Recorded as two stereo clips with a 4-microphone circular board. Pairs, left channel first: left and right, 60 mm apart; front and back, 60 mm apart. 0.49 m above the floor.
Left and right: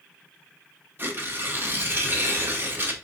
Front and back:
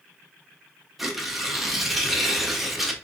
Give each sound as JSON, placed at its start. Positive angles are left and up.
{"t": 1.0, "sound": "tearing paper", "azimuth_deg": -95, "distance_m": 0.9}